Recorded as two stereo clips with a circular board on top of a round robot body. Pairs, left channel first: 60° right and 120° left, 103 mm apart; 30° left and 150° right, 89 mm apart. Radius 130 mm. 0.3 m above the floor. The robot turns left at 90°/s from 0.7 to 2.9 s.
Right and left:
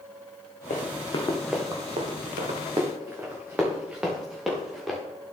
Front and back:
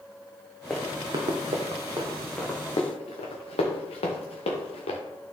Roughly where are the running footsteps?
Ahead right.